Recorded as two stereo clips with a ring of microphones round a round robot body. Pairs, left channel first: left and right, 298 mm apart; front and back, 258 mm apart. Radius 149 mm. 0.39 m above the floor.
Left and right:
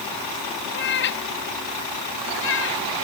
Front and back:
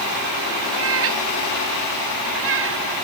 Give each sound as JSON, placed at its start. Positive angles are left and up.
{"t": 0.7, "sound": "a cat meowing", "azimuth_deg": 145}